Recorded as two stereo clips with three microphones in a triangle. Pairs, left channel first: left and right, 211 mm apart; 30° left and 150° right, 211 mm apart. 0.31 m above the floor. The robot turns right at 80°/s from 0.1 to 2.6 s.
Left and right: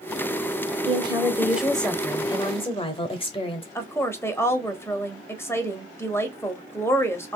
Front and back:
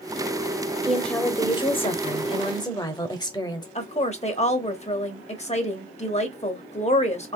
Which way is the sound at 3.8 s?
25° left.